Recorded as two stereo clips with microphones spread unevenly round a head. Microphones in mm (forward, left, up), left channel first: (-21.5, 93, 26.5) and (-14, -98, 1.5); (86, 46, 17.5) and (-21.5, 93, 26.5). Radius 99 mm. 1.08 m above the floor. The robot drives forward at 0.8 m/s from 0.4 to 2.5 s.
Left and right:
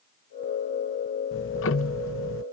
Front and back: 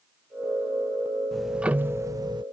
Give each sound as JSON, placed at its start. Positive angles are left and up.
{"t": 1.3, "sound": "ticking", "azimuth_deg": 65}